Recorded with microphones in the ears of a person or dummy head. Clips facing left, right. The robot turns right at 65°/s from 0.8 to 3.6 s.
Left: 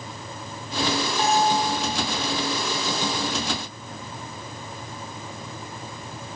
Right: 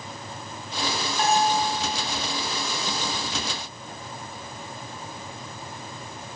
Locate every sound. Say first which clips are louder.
1.2 s a bell: even; centre (ahead or behind), 1.4 m; by 1.6 s 20° right (ahead or behind), 1.4 m